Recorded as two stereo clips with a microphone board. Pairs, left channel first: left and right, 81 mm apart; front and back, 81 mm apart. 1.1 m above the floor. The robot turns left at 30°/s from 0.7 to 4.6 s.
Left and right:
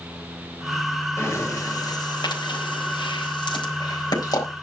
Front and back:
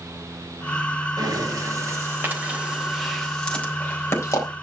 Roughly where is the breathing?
Behind left.